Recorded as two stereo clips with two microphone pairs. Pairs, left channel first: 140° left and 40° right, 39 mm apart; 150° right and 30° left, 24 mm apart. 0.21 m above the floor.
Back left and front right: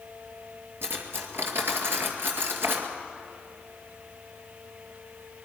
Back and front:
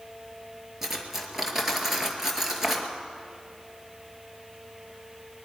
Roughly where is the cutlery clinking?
Ahead right.